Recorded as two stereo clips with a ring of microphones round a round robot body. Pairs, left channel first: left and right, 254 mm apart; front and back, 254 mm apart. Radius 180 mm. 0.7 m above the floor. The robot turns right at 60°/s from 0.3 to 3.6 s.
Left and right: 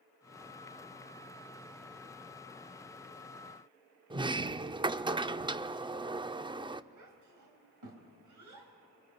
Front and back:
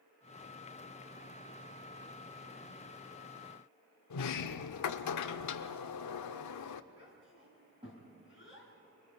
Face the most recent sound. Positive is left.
turn(degrees=-105)